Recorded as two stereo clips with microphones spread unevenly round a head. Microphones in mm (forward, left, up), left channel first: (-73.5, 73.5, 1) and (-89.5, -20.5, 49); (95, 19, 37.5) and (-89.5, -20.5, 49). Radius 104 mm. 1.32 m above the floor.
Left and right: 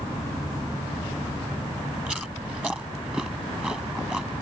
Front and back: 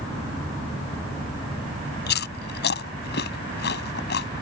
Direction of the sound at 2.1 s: 25° right.